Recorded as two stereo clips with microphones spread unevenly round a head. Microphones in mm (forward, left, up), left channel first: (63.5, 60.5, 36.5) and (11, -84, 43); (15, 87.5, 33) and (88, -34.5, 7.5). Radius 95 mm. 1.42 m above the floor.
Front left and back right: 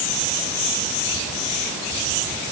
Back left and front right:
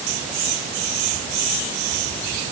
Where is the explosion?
No explosion in this recording.